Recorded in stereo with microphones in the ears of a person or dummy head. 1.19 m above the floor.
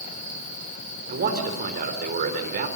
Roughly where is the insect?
Left.